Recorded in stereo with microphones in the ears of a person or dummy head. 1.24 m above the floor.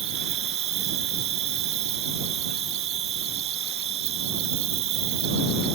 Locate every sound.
0.0 s an insect: 35° right (ahead or behind)